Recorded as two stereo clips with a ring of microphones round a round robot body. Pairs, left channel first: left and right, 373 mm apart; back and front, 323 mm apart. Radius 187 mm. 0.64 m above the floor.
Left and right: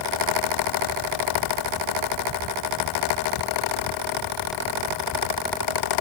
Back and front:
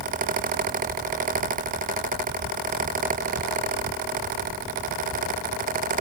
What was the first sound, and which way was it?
Only background noise.